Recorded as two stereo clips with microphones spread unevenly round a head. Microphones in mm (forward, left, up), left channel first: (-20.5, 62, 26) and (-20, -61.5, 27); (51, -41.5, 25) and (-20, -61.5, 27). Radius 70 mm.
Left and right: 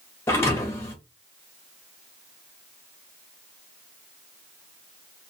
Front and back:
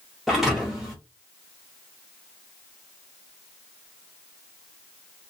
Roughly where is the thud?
Behind left.